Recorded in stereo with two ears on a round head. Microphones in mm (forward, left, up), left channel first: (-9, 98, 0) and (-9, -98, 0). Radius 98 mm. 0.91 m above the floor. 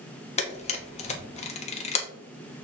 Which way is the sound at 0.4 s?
30° left (ahead or behind).